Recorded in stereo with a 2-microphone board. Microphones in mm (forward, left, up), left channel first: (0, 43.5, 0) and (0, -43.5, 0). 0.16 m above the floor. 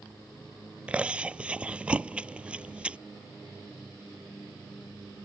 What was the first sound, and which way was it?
Chewing, 15° right (ahead or behind).